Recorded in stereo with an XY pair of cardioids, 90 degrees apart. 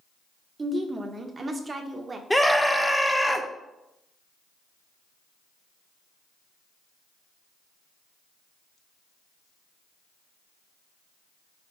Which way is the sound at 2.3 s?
5° left.